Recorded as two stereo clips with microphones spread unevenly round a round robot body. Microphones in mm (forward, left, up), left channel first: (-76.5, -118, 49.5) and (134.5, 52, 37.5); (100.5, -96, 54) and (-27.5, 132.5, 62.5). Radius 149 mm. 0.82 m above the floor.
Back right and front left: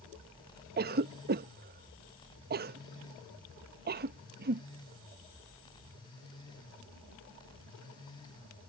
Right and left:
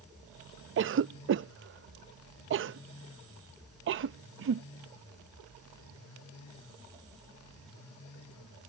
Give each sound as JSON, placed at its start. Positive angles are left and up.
{"t": 0.8, "sound": "a cough", "azimuth_deg": 85}